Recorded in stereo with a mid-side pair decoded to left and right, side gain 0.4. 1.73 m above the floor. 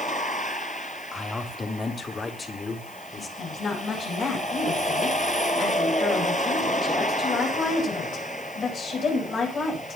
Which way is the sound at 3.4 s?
65° left.